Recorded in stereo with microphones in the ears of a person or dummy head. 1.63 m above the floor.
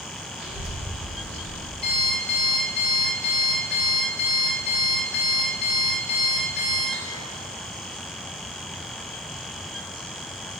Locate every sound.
0.4 s a child speaking: 55° right (ahead or behind), 2 m; by 1.7 s 45° right (ahead or behind), 0.8 m
1.8 s an alarm clock: 15° right (ahead or behind), 1.1 m